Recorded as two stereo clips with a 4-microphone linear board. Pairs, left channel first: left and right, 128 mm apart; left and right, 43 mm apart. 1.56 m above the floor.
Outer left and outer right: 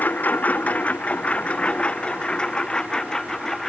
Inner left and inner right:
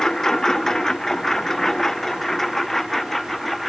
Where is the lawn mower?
15° left (ahead or behind); by 3.7 s 5° left (ahead or behind).